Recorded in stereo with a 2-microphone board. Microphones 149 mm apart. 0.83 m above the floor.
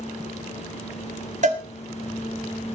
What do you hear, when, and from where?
1.4 s a cowbell: 50° right (ahead or behind), 1.9 m